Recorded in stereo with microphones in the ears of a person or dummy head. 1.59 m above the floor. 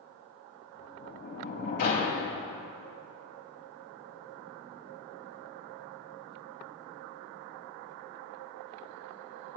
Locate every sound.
0.8 s a sliding door: 55° left (ahead or behind), 4.5 m